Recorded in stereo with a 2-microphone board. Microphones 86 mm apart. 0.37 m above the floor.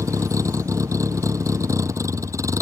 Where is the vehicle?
35° right (ahead or behind).